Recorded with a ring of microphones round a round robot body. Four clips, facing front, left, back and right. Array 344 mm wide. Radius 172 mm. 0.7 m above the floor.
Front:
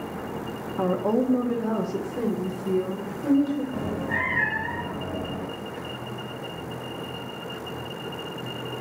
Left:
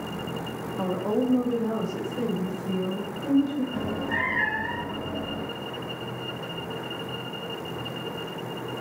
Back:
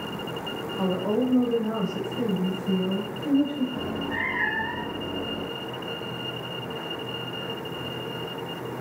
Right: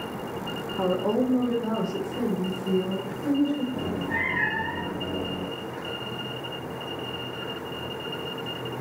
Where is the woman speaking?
20° right, 0.7 m; by 3.6 s 5° right, 2 m.